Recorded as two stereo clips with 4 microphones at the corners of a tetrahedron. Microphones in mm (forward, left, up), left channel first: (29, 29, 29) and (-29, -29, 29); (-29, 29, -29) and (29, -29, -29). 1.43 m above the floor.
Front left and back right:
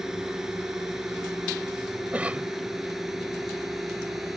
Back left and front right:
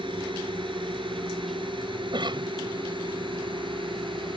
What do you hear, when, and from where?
0.0 s a drone: 50° right
2.1 s a cough: 60° right